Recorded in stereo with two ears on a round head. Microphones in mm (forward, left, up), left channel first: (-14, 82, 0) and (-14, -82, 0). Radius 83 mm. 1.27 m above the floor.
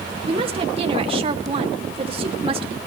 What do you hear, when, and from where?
0.2 s a woman speaking: 35° right (ahead or behind), 2.5 m